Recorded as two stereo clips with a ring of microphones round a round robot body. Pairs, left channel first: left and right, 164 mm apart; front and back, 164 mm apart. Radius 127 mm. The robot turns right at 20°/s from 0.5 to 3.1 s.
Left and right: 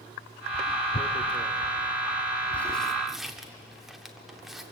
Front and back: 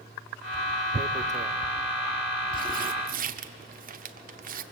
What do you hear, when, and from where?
0.9 s tearing paper: 140° left, 0.9 m; by 4.6 s straight behind, 0.9 m